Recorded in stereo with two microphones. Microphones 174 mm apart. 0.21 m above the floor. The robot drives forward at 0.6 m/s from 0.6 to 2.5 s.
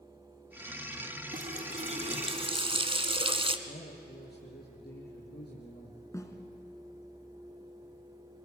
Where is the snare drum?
20° left (ahead or behind), 2 m.